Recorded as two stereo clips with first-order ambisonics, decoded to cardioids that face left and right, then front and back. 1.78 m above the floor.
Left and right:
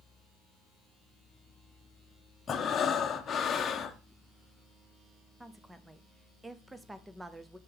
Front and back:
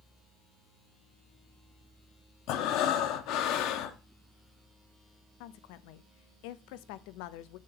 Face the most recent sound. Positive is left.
turn(degrees=-5)